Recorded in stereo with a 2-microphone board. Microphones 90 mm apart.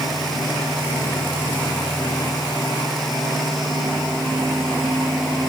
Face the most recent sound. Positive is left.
No sound to turn to.